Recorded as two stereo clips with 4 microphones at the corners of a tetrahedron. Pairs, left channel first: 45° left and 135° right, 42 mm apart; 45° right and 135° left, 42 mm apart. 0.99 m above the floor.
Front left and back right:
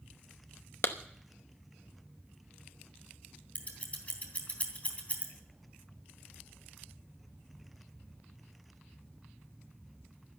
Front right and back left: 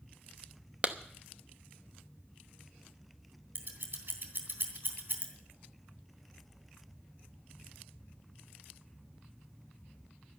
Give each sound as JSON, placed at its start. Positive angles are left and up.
{"t": 0.8, "sound": "a clap", "azimuth_deg": 80, "distance_m": 0.9}
{"t": 3.5, "sound": "scissors", "azimuth_deg": 105, "distance_m": 2.5}